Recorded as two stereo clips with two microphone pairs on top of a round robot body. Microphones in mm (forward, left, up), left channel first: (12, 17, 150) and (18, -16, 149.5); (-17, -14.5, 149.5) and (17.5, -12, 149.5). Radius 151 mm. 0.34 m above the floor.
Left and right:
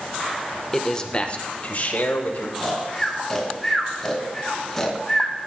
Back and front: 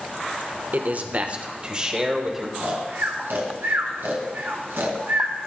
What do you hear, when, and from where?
0.7 s a man speaking: 20° left, 1.3 m; by 2.5 s 80° left, 2.5 m
2.6 s snoring: 20° left, 1.6 m